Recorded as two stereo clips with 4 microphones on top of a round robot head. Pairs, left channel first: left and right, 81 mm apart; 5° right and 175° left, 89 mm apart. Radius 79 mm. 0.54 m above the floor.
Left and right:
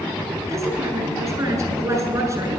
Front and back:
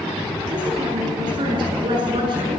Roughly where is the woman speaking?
Behind right.